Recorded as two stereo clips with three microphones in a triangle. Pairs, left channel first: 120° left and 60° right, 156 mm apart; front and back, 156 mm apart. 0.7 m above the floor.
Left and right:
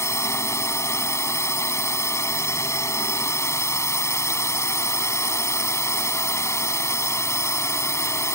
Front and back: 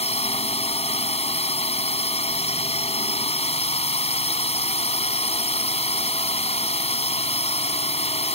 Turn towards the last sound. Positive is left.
turn(degrees=45)